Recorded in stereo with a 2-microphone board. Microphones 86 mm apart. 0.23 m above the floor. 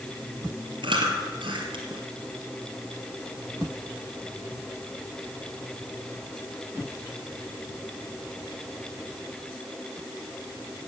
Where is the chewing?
75° right (ahead or behind), 2 m.